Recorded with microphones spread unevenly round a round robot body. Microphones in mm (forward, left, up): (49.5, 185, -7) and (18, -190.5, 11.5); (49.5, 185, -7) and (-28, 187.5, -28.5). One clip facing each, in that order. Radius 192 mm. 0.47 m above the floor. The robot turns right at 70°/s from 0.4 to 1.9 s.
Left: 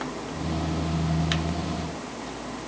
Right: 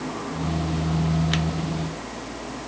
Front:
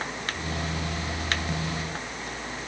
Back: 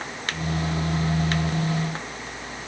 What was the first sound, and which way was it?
Only background noise.